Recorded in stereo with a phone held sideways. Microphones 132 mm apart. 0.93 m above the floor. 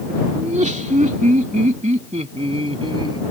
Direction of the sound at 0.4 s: 70° right (ahead or behind).